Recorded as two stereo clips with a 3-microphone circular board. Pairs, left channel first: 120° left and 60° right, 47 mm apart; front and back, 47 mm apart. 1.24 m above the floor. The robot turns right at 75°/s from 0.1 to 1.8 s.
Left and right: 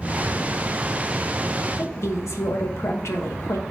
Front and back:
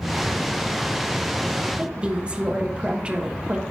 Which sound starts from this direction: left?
A woman speaking, at 1.8 s.